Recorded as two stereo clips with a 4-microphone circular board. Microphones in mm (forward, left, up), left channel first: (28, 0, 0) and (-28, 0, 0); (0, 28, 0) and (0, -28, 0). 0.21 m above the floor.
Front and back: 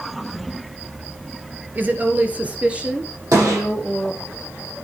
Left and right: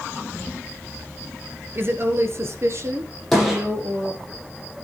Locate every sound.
1.8 s a woman speaking: 130° right, 3 m; by 4.2 s 100° right, 4 m
3.3 s a gunshot: 175° left, 9 m